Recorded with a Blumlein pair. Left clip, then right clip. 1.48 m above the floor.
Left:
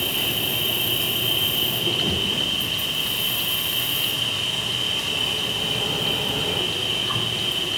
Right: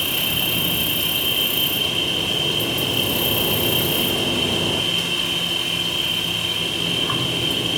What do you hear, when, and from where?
0.0 s an insect: 30° right, 3.5 m